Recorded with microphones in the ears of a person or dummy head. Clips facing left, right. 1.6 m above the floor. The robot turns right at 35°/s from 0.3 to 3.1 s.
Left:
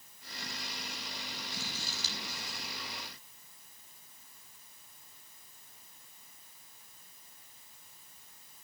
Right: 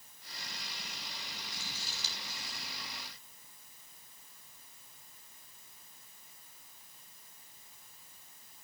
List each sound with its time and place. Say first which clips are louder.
1.5 s scissors: left 5 dB; 60° left (ahead or behind), 7 m; by 2.6 s 80° left, 7 m